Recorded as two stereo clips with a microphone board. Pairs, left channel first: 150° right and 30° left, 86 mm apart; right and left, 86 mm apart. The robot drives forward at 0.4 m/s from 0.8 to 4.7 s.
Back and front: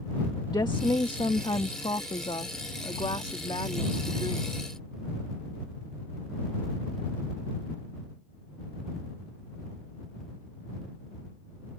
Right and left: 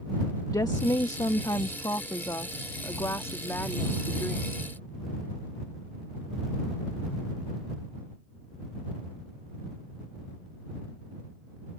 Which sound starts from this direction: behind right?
A woman speaking, at 0.5 s.